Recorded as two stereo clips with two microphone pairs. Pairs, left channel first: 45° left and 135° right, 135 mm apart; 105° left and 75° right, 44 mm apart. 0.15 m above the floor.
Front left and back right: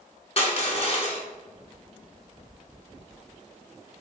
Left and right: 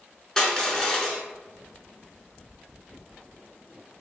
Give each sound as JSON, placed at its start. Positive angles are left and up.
{"t": 0.4, "sound": "crushing", "azimuth_deg": 25, "distance_m": 0.6}